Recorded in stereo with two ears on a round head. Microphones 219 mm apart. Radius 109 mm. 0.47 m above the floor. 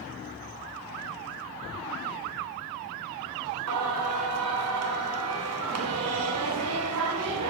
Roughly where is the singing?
Right.